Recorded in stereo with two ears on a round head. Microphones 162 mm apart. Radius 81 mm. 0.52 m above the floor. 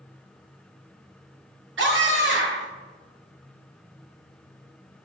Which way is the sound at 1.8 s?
80° right.